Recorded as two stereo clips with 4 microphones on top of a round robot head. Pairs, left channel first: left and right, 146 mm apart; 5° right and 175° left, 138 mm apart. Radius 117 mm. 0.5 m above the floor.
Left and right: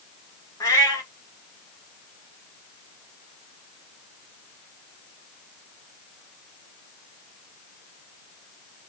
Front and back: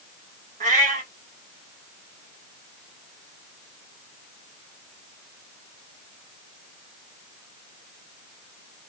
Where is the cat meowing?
160° left, 1.8 m.